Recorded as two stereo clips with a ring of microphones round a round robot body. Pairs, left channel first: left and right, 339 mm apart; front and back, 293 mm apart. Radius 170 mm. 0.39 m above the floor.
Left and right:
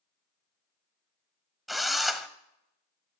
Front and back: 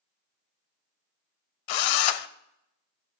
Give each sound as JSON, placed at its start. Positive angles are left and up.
{"t": 1.7, "sound": "a drill", "azimuth_deg": 0, "distance_m": 0.6}